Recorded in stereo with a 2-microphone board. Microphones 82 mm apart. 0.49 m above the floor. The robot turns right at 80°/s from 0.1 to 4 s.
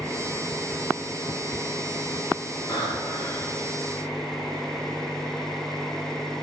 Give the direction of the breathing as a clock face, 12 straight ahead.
10 o'clock.